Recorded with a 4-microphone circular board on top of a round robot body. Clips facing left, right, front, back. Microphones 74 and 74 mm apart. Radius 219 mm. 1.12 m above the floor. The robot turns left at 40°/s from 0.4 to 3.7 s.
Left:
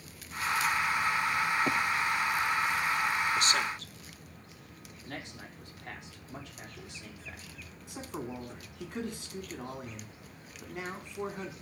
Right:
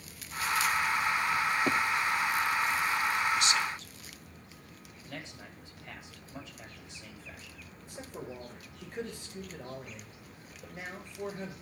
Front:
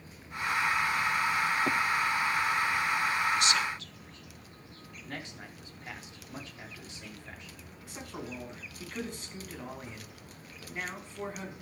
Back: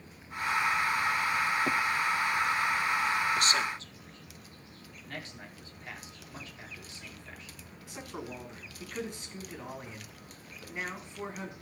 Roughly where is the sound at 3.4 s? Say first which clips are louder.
Even, even; behind left.